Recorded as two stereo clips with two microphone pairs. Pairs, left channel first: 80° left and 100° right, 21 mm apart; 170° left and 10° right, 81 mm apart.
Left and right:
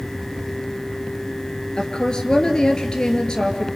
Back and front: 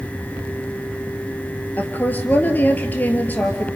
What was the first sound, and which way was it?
A woman speaking, 110° left.